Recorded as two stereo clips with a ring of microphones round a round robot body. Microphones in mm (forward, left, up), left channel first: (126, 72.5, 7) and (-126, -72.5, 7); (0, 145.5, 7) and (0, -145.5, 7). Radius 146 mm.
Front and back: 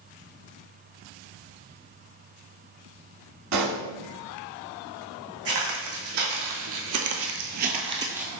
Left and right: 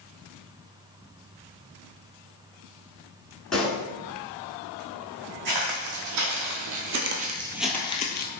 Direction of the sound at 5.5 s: 105° right.